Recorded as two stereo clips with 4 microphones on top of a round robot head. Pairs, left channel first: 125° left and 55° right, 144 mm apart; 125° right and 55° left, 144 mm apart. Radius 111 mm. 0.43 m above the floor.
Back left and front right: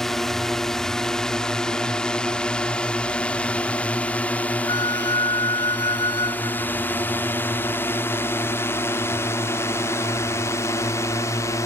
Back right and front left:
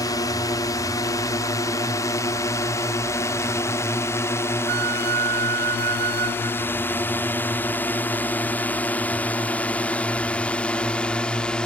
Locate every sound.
0.0 s a drone: 150° right; by 11.7 s 155° left
4.7 s a flute: 60° left